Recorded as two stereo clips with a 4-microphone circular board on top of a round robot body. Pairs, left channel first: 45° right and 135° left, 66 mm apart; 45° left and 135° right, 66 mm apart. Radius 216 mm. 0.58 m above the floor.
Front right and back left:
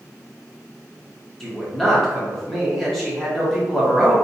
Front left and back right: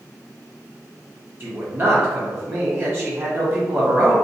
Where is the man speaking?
125° right, 1.0 m.